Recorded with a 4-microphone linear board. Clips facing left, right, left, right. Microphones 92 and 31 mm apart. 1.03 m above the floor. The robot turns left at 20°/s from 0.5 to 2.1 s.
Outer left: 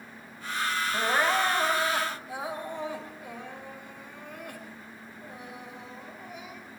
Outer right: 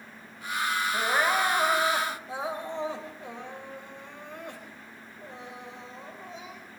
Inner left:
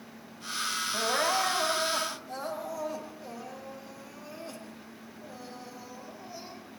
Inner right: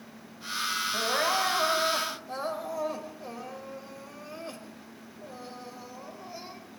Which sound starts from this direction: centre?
Crying, at 0.9 s.